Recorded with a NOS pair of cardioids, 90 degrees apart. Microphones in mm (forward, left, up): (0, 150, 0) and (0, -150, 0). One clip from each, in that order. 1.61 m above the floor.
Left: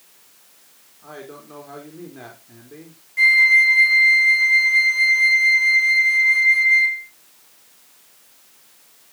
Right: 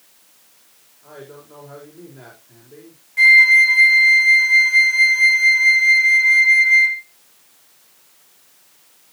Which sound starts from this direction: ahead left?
A man speaking, at 1.0 s.